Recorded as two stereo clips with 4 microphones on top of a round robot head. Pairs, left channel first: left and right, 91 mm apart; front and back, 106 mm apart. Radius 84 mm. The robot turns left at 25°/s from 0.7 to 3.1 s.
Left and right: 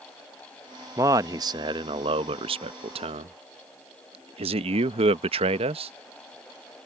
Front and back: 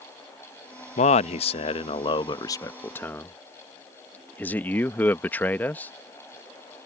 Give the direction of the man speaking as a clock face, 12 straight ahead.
1 o'clock.